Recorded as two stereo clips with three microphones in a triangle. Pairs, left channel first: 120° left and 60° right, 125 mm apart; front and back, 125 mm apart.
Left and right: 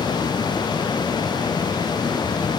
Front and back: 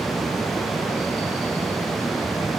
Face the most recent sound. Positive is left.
No sound to turn to.